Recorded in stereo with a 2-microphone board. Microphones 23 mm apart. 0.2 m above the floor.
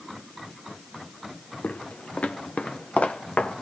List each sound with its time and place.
1.6 s footsteps: 65° left (ahead or behind), 1.4 m; by 3.6 s 85° left, 2.5 m